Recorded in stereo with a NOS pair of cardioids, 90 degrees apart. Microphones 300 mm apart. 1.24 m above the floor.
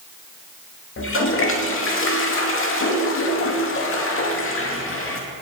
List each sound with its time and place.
1.0 s a toilet flushing: 45° left, 2 m